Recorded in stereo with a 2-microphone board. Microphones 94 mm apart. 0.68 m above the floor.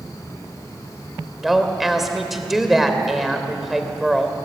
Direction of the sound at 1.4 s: Centre (ahead or behind).